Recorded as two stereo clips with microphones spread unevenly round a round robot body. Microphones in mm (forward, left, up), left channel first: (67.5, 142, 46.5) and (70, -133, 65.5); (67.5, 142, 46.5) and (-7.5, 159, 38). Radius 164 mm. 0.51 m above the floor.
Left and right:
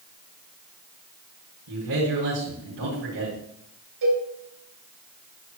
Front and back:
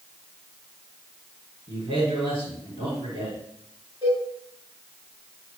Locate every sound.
1.7 s a man speaking: 125° right, 4.5 m
4.0 s a cowbell: 120° right, 3.5 m